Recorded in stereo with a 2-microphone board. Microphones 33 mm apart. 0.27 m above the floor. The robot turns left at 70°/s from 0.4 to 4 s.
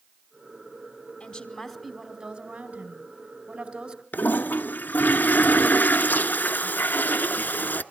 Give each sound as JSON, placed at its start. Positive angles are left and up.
{"t": 1.2, "sound": "a woman speaking", "azimuth_deg": 55, "distance_m": 2.5}
{"t": 4.1, "sound": "a toilet flushing", "side_deg": 70, "distance_m": 0.6}